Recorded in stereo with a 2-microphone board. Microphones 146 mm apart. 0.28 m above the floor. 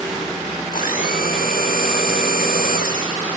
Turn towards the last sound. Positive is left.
turn(degrees=70)  # may be behind; listen again after turning